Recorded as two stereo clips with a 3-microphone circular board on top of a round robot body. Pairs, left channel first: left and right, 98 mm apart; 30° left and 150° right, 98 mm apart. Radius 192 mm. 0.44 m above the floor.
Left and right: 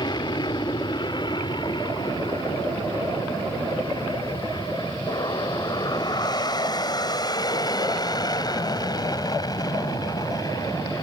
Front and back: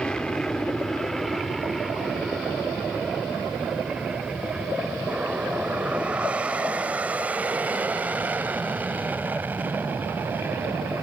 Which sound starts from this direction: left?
An aircraft, at 0.0 s.